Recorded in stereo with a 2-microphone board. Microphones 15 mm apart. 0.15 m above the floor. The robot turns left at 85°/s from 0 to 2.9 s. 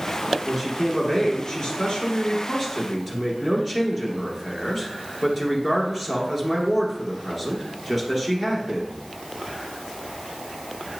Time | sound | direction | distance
0.4 | a man speaking | 160° right | 2 m